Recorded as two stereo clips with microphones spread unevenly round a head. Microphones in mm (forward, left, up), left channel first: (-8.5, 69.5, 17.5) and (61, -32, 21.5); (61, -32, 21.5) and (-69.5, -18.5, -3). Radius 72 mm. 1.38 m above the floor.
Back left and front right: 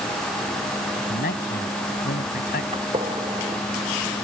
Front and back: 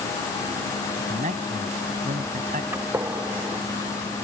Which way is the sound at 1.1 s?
130° left.